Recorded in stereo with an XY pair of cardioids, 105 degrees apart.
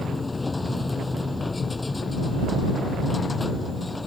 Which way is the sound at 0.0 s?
15° left.